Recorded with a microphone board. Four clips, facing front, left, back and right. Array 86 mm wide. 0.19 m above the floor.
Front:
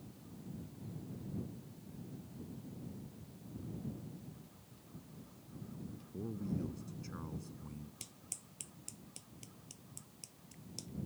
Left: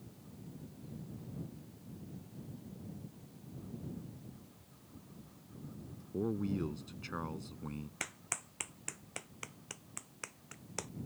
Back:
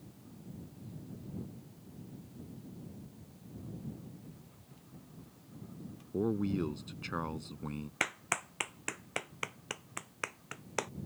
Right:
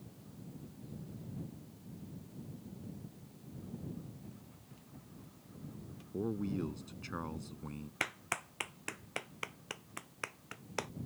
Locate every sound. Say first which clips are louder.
4.2 s running footsteps: right 1 dB, back 1 dB; 125° right; by 6.0 s 115° right
6.1 s a man speaking: left 1 dB, back 9 dB; 175° left
8.0 s a clap: right 6 dB, back 21 dB; 160° right